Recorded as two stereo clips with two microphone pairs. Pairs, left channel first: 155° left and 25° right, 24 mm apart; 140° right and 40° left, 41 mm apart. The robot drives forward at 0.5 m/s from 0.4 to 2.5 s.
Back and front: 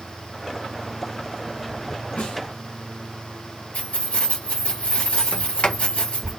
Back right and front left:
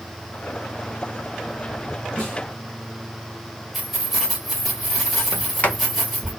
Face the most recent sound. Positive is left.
turn(degrees=170)